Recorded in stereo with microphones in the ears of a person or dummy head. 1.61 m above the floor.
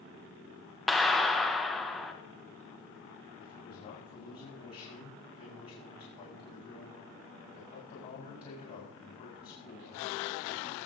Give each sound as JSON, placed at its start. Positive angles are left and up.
{"t": 0.9, "sound": "a clap", "side_deg": 0, "distance_m": 0.8}
{"t": 3.4, "sound": "a man speaking", "side_deg": 40, "distance_m": 5.0}